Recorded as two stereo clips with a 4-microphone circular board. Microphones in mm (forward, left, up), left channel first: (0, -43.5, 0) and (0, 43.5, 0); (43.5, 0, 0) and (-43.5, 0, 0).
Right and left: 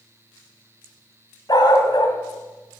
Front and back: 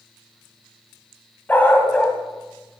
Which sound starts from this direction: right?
A dog barking, at 1.5 s.